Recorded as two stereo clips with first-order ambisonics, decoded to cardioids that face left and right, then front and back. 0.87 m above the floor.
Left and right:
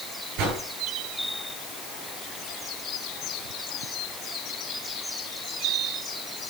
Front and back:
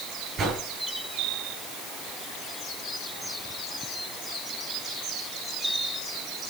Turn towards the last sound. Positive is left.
turn(degrees=-115)